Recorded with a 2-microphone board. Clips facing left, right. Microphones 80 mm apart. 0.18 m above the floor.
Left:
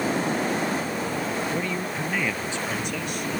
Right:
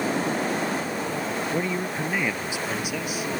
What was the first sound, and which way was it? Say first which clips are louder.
A woman speaking: right 1 dB; 20° right (ahead or behind).